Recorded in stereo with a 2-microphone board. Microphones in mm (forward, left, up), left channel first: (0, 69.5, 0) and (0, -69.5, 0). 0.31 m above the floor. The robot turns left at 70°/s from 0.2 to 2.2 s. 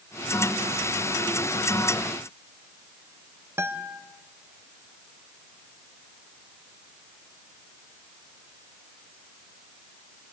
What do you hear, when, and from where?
3.6 s a guitar: 15° right (ahead or behind), 1.3 m